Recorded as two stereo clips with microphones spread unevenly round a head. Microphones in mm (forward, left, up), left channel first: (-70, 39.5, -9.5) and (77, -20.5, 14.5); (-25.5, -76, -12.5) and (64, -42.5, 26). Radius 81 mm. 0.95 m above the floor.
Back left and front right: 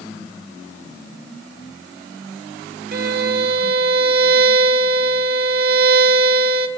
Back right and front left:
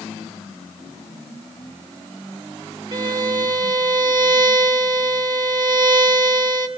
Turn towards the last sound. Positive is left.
turn(degrees=-5)